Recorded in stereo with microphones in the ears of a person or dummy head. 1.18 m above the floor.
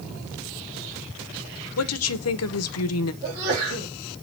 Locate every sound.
1.8 s a woman speaking: 75° left (ahead or behind), 0.8 m
3.2 s a sneeze: 50° right (ahead or behind), 3 m